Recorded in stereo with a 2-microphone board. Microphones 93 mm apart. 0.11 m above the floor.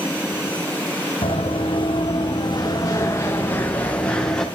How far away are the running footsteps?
About 1.9 m.